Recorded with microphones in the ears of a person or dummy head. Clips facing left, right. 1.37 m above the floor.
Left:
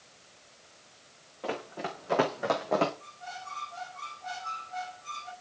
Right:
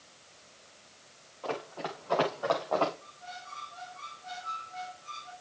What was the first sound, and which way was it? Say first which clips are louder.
Running footsteps: left 1 dB; 20° left (ahead or behind).